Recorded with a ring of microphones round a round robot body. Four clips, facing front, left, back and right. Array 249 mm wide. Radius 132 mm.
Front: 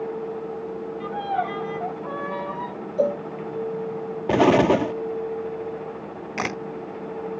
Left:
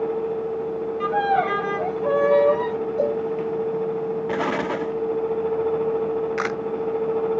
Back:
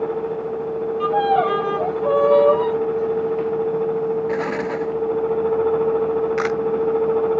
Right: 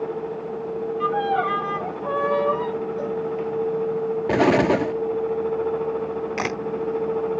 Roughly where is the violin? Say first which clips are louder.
Left 2 dB, back 9 dB; behind left.